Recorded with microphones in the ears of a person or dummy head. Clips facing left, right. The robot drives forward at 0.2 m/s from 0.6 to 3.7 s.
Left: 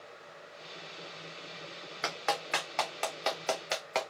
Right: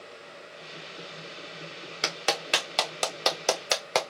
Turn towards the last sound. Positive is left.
turn(degrees=-65)  # may be behind; listen again after turning